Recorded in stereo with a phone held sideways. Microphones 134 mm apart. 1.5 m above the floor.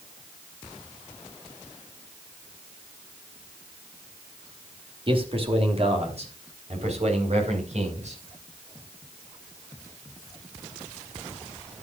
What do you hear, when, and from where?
5.1 s a man speaking: 40° right (ahead or behind), 3 m; by 8.2 s 60° right (ahead or behind), 6.5 m